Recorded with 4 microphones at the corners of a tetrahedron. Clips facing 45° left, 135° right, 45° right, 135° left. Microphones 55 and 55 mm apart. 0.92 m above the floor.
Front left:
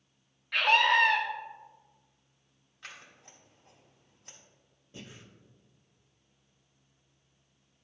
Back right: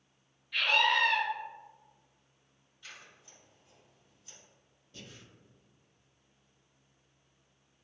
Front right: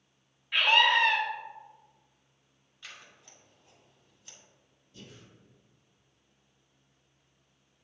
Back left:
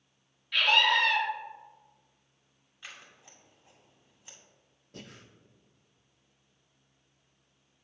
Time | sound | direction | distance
0.5 | a scream | 20° left | 1.4 m
2.8 | scissors | 60° left | 2.0 m
4.9 | breathing | 110° left | 0.7 m